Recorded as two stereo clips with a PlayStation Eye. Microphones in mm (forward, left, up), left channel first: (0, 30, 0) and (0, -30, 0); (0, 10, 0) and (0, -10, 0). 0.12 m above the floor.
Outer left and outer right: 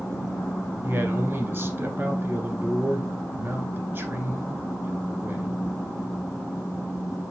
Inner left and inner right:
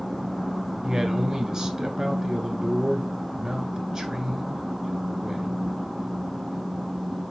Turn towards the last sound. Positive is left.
turn(degrees=-35)  # may be behind; listen again after turning